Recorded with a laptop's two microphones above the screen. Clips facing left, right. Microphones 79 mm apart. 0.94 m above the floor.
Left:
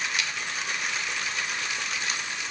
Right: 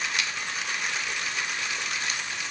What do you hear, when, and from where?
Only background noise.